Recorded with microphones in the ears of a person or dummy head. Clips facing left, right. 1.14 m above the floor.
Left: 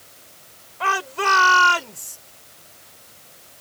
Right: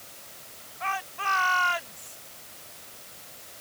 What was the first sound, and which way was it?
A shout, 75° left (ahead or behind).